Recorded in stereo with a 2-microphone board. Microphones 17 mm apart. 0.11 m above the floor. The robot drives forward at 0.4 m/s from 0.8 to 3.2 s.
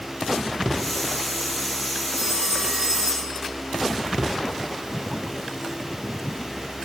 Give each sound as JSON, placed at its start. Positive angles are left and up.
{"t": 2.1, "sound": "a phone ringing", "side_deg": -65, "distance_m": 6.5}